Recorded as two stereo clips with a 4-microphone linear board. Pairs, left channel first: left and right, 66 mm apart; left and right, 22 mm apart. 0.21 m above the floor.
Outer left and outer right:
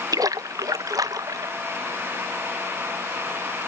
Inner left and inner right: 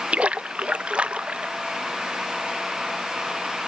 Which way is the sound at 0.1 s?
70° right (ahead or behind).